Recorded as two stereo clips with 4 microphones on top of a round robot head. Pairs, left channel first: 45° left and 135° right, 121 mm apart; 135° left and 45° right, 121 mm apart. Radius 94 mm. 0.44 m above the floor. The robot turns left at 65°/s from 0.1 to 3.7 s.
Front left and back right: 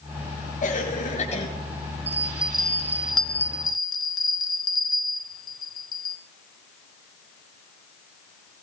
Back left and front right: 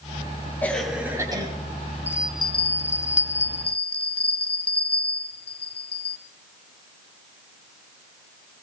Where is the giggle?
I don't hear a giggle.